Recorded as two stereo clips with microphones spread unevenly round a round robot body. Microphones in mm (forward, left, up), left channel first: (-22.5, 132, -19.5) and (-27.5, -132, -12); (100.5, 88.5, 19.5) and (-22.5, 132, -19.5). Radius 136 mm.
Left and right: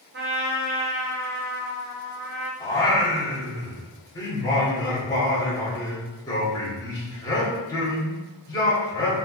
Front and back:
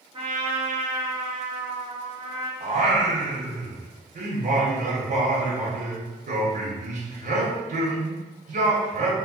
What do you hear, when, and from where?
0.1 s a trumpet: 145° right, 0.9 m
2.6 s singing: 165° left, 1.2 m